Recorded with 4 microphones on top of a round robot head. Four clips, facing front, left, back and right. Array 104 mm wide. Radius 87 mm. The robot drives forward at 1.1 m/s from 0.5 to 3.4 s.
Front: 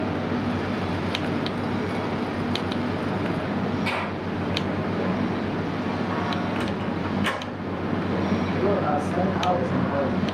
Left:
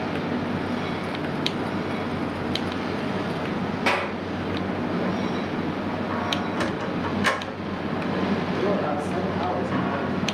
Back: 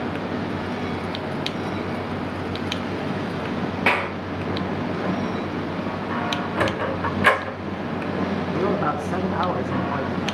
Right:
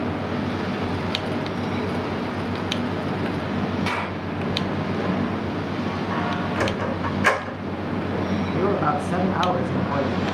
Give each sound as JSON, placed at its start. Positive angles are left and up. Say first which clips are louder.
{"t": 3.9, "sound": "a clap", "louder": "left 2 dB, back 5 dB", "azimuth_deg": 165, "distance_m": 8.0}
{"t": 6.6, "sound": "a sliding door", "louder": "right 2 dB, back 4 dB", "azimuth_deg": -155, "distance_m": 2.5}
{"t": 8.5, "sound": "a man speaking", "louder": "right 5 dB, back 1 dB", "azimuth_deg": -135, "distance_m": 5.5}